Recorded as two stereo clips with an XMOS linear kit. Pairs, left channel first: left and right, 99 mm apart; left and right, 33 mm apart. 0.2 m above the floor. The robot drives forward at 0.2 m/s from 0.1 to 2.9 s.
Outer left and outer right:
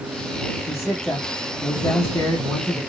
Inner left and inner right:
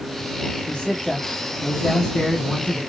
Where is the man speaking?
30° left (ahead or behind), 1.1 m.